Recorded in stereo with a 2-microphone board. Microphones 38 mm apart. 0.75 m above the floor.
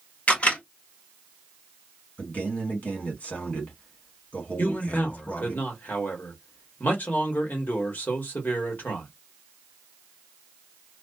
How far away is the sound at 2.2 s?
About 1.4 m.